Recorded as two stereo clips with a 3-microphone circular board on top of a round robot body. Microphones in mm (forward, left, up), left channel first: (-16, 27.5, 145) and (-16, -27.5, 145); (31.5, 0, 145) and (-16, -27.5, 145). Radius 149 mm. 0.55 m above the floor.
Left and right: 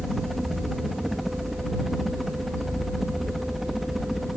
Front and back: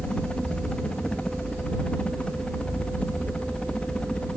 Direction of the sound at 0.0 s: Straight ahead.